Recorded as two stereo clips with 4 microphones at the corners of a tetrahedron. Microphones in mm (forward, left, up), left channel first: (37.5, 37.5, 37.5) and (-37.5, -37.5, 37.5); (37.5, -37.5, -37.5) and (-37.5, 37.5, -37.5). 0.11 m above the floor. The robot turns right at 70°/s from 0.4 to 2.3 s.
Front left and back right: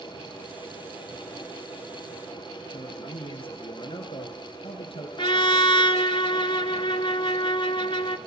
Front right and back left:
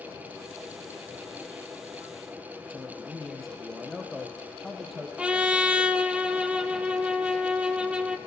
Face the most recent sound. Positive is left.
turn(degrees=60)